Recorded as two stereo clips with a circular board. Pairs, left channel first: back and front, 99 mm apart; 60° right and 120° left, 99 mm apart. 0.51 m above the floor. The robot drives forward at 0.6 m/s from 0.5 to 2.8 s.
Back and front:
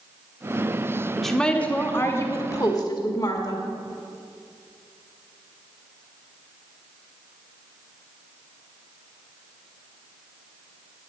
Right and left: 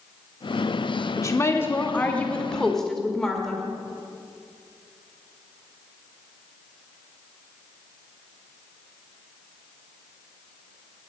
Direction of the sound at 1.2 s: 90° right.